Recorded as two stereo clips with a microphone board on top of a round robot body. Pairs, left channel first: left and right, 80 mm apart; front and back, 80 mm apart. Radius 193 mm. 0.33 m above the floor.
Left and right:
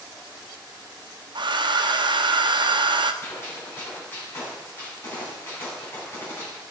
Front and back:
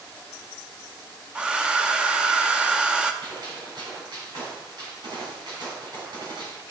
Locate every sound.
1.4 s a hair dryer: 100° right, 0.9 m
3.2 s a gunshot: 150° left, 4 m